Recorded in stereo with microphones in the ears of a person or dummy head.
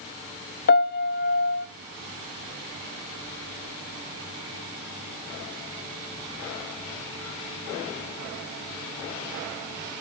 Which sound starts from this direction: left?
A piano, at 0.7 s.